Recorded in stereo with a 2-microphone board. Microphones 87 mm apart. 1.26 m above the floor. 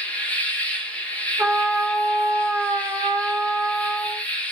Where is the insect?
15° left (ahead or behind), 1.0 m.